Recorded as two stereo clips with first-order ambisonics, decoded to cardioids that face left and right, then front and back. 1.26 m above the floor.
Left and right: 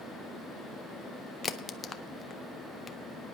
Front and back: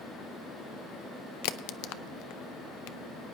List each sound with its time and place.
1.4 s a crack: 15° left, 0.5 m